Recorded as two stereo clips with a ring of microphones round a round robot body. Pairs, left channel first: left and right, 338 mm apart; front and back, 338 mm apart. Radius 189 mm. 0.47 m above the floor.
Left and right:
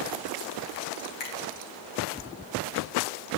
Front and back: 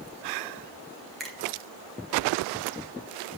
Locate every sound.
1.2 s a finger snap: 90° left, 3.5 m